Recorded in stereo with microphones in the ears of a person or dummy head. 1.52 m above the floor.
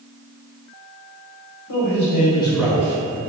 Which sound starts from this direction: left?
A man speaking, at 1.7 s.